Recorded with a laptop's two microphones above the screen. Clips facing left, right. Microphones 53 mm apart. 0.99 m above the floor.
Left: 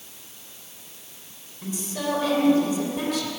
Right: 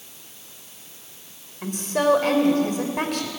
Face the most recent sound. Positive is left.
turn(degrees=-55)  # may be behind; listen again after turning